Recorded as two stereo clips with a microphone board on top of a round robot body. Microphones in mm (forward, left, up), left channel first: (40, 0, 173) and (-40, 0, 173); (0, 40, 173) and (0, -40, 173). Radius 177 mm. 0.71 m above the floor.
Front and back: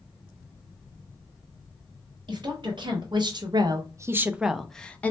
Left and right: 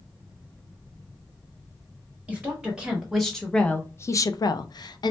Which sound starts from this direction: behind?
A woman speaking, at 2.3 s.